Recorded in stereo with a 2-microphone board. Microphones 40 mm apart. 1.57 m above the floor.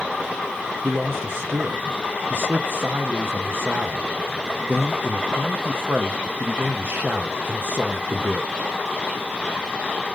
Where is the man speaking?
55° right (ahead or behind), 0.6 m.